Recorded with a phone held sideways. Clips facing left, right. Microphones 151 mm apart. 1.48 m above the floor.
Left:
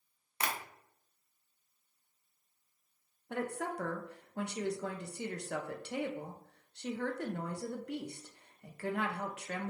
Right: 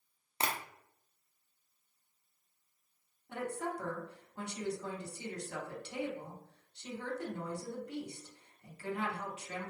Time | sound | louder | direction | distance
0.4 | tapping | right 1 dB | 30° right (ahead or behind) | 0.7 m
3.3 | a woman speaking | left 1 dB | 65° left (ahead or behind) | 0.8 m